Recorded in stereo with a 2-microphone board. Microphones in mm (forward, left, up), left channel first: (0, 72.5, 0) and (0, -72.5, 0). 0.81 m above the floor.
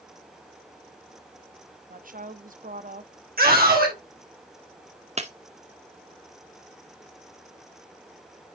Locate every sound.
1.9 s a woman speaking: 65° right (ahead or behind), 1.0 m
3.4 s a scream: 80° right, 3 m
5.2 s breaking glass: 45° right (ahead or behind), 1.0 m